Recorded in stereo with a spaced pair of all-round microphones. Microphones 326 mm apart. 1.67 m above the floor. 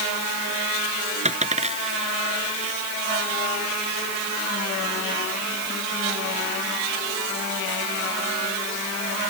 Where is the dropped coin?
20° right (ahead or behind).